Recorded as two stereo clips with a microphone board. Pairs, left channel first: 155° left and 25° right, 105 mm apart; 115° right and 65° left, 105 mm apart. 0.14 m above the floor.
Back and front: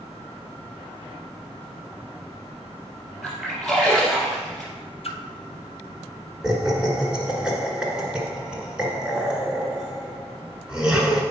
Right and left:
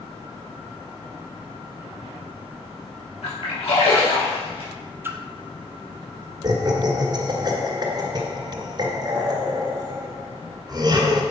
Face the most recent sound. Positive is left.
turn(degrees=55)